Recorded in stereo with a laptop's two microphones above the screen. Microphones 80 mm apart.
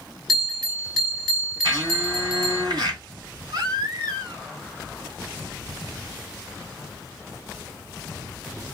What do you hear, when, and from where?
0.3 s a bell: 5° left (ahead or behind), 1.1 m
1.6 s a blender: 60° right (ahead or behind), 1.5 m
3.5 s a baby crying: 70° right (ahead or behind), 1.3 m